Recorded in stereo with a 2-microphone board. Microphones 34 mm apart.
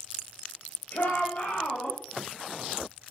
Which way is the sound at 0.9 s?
65° left (ahead or behind).